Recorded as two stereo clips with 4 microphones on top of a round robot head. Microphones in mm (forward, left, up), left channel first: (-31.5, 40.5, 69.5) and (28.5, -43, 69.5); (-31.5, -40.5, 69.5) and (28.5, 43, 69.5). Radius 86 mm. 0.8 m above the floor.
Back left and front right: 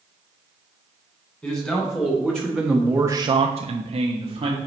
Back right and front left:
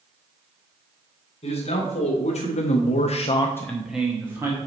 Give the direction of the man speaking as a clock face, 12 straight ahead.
5 o'clock.